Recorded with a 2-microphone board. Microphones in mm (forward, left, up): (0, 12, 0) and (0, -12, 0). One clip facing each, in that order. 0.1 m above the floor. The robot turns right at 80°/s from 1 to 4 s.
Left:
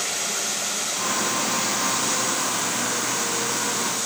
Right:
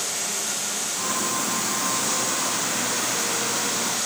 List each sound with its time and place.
0.0 s running water: 90° left, 5 m; by 4.1 s 30° right, 5 m